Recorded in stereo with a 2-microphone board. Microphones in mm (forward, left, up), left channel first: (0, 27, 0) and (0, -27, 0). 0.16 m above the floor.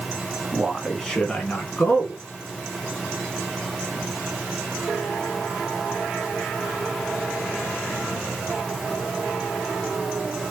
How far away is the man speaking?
About 1.7 m.